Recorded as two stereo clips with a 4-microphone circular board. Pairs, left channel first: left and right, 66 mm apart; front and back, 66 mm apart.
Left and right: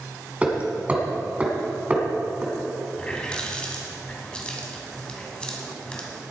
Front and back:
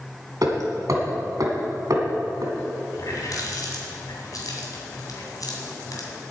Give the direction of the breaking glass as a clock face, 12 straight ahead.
No breaking glass in this recording.